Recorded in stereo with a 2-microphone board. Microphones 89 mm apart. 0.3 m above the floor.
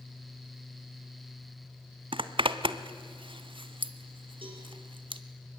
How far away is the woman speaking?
No woman speaking in this recording.